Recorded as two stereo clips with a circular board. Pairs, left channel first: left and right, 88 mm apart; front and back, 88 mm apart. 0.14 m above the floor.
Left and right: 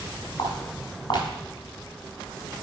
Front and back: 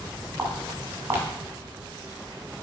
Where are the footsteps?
125° left, 4.5 m.